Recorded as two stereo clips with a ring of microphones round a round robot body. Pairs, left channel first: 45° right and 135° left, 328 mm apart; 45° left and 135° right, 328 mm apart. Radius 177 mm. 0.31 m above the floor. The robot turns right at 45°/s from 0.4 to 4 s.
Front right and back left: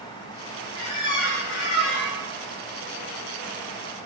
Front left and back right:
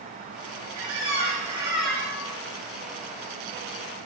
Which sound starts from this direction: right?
A squeak, at 0.8 s.